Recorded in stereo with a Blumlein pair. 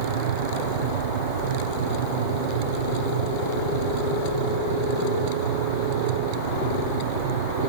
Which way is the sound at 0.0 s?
60° right.